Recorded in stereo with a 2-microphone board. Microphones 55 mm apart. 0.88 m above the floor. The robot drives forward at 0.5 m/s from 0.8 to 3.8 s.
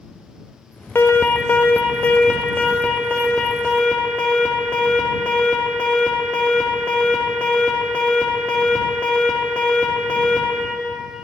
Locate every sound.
0.9 s an alarm: 45° left (ahead or behind), 0.9 m; by 10.6 s 20° left (ahead or behind), 2.0 m